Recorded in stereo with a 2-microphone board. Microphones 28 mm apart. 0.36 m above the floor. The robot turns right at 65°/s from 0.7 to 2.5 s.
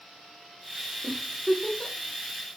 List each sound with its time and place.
1.0 s a giggle: 20° left (ahead or behind), 0.8 m; by 1.9 s 25° left (ahead or behind), 0.8 m